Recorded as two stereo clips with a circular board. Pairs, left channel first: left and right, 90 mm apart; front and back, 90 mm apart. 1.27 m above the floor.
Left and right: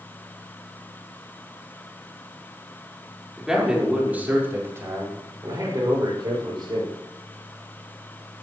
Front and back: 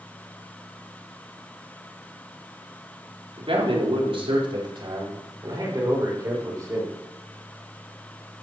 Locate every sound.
3.4 s a man speaking: 175° right, 4.5 m; by 6.9 s 125° right, 6.5 m